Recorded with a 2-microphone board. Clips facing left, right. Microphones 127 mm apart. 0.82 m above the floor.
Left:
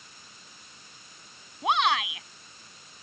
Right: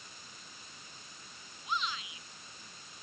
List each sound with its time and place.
1.6 s a shout: 85° left